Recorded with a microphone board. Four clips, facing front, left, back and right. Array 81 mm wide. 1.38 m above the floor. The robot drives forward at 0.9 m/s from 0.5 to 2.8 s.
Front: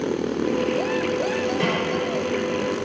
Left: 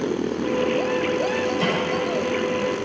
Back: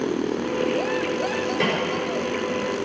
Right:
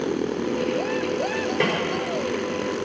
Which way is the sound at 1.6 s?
100° right.